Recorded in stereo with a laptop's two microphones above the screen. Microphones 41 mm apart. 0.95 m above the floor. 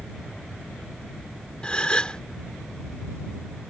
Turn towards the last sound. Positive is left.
turn(degrees=30)  # may be behind; listen again after turning